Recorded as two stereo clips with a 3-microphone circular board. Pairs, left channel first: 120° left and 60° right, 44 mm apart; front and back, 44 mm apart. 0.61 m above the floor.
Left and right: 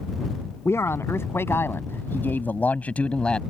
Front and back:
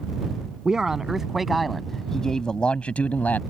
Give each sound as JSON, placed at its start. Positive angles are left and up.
{"t": 0.7, "sound": "a man speaking", "azimuth_deg": 105}